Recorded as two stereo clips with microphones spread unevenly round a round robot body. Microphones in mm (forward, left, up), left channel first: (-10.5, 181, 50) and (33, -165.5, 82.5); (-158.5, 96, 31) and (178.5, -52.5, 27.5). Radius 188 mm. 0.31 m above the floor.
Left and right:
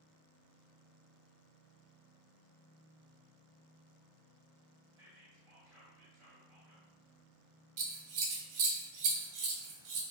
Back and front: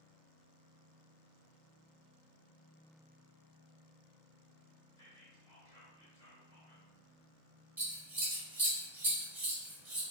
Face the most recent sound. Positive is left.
turn(degrees=-105)